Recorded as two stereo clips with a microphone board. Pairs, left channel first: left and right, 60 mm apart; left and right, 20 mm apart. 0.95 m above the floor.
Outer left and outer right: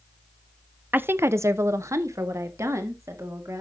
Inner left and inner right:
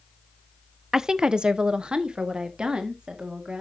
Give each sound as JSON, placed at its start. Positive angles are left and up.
{"t": 0.9, "sound": "a woman speaking", "side_deg": -30, "distance_m": 0.5}